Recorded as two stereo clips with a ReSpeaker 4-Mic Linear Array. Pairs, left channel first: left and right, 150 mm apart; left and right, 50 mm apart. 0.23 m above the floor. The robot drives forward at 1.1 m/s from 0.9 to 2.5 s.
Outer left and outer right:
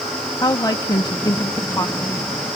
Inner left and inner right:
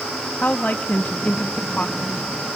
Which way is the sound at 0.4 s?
25° left (ahead or behind).